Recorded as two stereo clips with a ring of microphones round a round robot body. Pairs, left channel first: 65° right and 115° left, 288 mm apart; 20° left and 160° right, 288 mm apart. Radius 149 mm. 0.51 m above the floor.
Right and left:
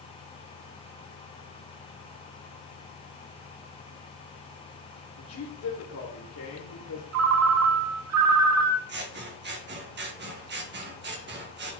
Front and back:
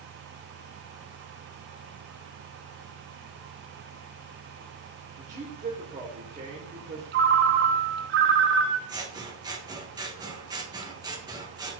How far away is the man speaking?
About 1.7 m.